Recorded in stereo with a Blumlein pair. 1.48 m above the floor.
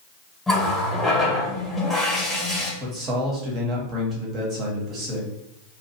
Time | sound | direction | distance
0.5 | a running tap | 5° left | 1.3 m
2.8 | a man speaking | 30° right | 1.2 m